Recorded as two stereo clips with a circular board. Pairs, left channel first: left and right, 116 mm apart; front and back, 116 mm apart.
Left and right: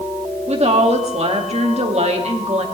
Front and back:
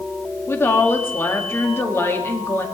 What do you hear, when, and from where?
0.5 s a woman speaking: 70° right, 2.0 m